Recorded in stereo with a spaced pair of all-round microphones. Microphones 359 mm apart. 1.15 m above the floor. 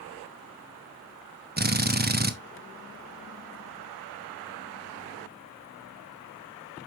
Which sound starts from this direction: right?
A drill, at 1.6 s.